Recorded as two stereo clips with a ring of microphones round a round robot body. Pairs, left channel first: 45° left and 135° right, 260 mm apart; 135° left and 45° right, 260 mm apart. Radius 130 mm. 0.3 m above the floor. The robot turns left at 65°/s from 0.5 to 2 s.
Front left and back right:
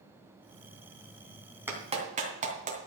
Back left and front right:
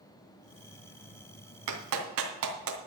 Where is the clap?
55° right, 2.5 m; by 2.8 s 75° right, 2.5 m.